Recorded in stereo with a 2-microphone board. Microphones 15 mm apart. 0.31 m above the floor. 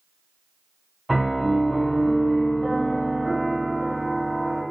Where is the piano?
5° right (ahead or behind), 1.9 m.